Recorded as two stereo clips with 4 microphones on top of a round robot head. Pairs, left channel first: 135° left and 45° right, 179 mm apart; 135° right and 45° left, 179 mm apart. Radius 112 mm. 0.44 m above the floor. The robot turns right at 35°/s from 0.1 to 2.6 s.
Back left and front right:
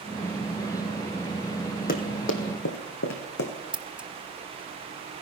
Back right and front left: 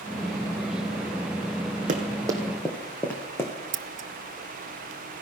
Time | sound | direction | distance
1.9 | running footsteps | 95° left | 1.3 m
3.7 | scissors | 40° left | 0.5 m